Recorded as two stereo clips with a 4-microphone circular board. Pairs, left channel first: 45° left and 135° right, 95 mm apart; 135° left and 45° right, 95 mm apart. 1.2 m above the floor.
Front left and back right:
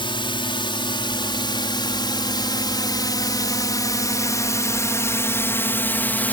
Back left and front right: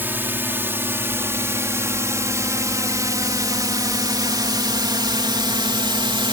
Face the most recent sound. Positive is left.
turn(degrees=-25)